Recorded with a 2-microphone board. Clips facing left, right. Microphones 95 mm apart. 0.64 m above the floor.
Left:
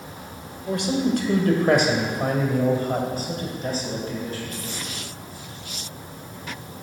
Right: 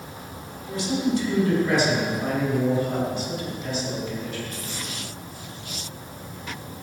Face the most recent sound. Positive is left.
turn(degrees=35)  # may be behind; listen again after turning